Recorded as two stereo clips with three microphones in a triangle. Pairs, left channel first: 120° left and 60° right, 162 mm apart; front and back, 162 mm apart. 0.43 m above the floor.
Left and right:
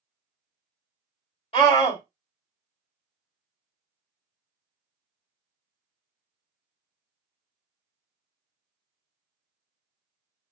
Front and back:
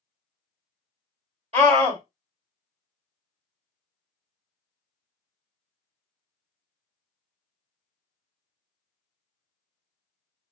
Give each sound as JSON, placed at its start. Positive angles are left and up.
{"t": 1.5, "sound": "a scream", "azimuth_deg": 155, "distance_m": 1.9}